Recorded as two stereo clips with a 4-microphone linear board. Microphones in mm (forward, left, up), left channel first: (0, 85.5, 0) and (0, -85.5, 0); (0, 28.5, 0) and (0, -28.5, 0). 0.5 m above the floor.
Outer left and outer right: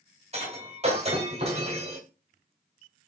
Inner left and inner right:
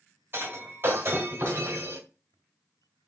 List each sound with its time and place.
0.3 s breaking glass: 40° right (ahead or behind), 1.4 m